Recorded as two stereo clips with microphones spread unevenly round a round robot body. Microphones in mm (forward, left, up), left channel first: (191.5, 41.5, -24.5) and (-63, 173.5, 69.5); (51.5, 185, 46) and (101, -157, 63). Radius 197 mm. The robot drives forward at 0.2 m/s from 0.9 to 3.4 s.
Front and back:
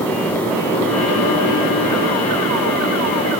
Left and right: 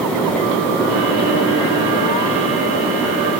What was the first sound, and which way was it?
Only background noise.